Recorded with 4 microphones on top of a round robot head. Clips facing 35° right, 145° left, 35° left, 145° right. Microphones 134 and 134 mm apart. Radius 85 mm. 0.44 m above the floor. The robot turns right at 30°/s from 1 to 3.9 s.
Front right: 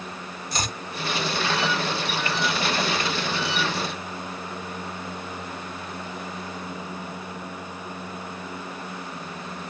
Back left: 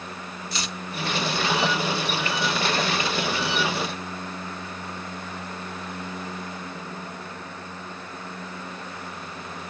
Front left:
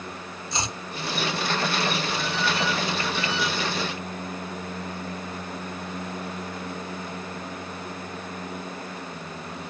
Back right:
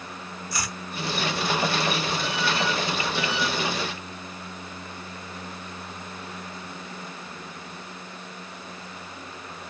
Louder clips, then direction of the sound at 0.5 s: Front right 4 dB, front left 3 dB; 20° right.